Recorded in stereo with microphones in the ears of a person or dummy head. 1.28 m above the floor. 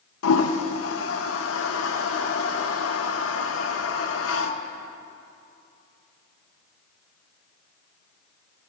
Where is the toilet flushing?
80° left, 0.8 m.